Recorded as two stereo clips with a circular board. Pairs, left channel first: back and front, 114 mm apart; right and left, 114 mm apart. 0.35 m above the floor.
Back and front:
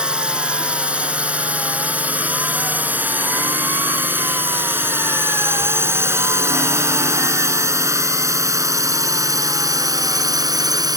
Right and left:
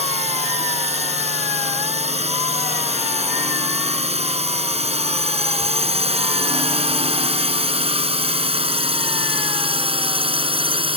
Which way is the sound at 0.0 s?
80° left.